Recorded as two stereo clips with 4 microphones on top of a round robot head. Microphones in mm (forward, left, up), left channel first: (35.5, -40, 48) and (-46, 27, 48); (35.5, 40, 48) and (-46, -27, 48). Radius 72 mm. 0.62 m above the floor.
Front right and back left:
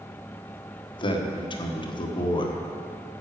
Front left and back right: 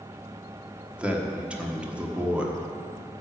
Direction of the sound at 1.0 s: 65° right.